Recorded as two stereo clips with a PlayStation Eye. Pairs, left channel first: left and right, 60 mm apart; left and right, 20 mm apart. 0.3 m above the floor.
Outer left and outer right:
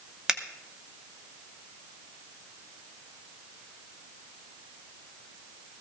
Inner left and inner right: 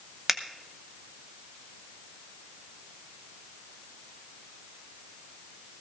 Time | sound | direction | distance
0.3 | a finger snap | 10° right (ahead or behind) | 1.1 m